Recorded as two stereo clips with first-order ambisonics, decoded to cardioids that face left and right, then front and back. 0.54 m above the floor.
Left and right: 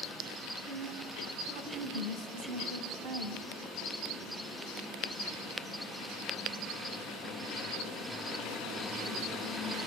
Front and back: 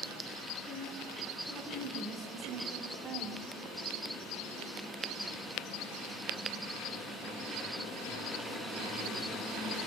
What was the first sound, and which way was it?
A woman speaking, 100° right.